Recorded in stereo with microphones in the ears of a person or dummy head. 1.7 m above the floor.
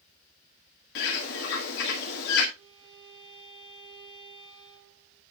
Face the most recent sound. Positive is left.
turn(degrees=-65)  # may be behind; listen again after turning